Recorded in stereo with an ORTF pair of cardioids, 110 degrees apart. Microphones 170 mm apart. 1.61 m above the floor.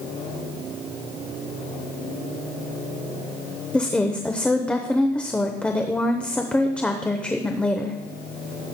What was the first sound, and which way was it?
A woman speaking, 5° left.